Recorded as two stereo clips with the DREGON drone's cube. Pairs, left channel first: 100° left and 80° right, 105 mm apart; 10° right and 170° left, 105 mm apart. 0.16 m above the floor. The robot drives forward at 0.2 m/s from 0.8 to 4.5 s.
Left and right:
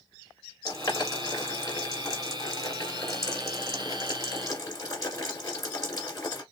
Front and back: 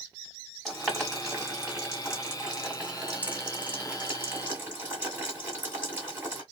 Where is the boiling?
75° left, 1.9 m; by 6.4 s 115° left, 1.9 m.